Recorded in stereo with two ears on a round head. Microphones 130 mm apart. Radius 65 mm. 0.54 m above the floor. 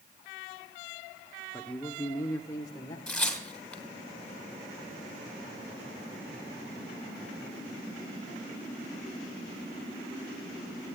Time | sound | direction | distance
1.5 | a man speaking | 5° left (ahead or behind) | 1.3 m
3.1 | tearing paper | 5° left (ahead or behind) | 2.5 m